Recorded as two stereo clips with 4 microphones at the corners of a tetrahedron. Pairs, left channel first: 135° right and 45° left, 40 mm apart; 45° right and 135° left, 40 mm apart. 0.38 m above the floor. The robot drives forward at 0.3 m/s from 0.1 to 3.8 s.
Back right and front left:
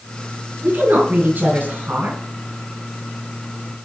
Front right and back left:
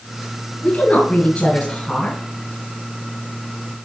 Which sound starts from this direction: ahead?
A woman speaking, at 0.6 s.